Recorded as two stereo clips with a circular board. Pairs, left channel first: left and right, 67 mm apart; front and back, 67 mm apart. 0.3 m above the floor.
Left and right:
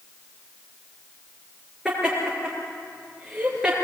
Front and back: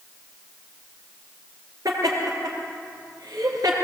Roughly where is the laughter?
Behind.